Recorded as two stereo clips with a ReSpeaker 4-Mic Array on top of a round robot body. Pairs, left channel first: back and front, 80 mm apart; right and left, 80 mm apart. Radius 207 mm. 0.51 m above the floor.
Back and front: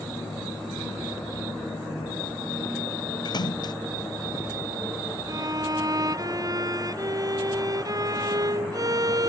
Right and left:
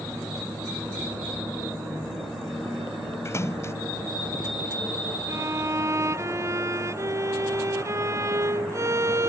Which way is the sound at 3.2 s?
145° right.